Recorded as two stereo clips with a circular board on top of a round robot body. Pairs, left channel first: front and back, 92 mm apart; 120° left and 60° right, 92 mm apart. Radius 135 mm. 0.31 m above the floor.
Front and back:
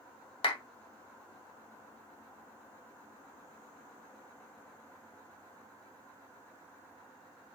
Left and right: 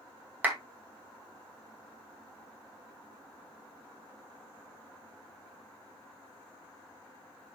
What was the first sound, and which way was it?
A clap, 10° left.